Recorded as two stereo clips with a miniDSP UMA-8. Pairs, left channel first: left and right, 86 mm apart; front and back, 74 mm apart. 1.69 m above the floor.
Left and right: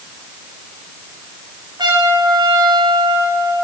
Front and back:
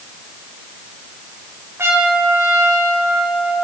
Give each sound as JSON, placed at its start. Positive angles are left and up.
{"t": 1.8, "sound": "a trumpet", "azimuth_deg": -125, "distance_m": 8.0}